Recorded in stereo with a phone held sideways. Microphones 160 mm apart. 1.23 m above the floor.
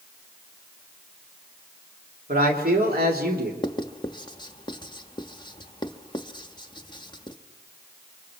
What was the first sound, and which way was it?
A man speaking, 65° right (ahead or behind).